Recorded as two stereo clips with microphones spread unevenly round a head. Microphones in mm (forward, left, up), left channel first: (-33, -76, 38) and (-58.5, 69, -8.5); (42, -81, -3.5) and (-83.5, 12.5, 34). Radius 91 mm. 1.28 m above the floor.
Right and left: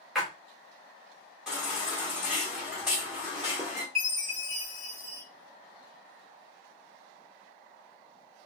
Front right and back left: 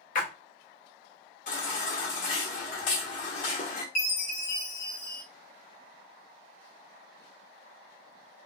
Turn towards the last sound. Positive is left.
turn(degrees=15)